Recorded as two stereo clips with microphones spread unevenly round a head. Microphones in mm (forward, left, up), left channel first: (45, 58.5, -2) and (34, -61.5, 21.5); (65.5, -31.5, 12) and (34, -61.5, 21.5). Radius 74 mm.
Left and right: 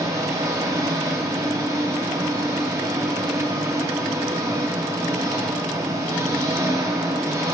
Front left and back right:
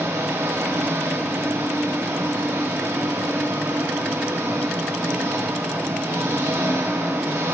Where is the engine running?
160° right, 0.7 m.